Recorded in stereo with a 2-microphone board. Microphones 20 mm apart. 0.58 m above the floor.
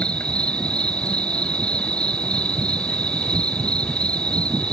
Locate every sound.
0.0 s an insect: 70° left (ahead or behind)